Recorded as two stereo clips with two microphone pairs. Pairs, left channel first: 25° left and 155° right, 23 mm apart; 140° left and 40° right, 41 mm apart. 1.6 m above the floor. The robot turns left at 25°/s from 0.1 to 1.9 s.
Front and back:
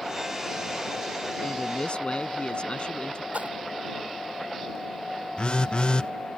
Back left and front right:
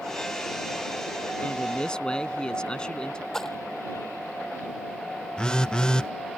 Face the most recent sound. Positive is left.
turn(degrees=70)